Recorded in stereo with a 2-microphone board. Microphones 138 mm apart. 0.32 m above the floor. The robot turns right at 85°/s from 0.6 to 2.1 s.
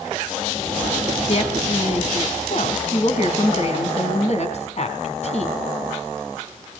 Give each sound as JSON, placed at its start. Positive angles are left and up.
{"t": 1.3, "sound": "a woman speaking", "azimuth_deg": 50, "distance_m": 3.0}